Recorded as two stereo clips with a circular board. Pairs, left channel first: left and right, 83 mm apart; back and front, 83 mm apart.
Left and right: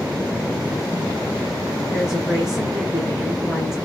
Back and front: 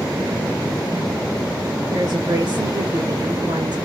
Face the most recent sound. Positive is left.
turn(degrees=-5)